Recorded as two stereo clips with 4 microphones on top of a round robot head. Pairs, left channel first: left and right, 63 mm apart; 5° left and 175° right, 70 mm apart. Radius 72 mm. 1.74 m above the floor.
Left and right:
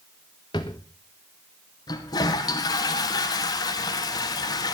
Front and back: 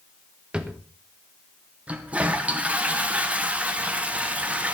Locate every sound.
0.5 s a drawer: 110° left, 1.2 m
1.9 s a toilet flushing: 110° left, 2 m